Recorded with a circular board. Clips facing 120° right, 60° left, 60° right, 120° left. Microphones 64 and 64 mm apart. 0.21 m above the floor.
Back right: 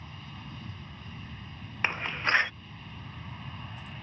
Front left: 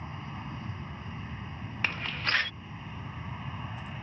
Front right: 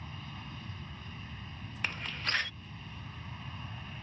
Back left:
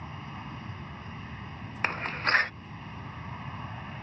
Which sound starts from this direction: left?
An aircraft, at 0.0 s.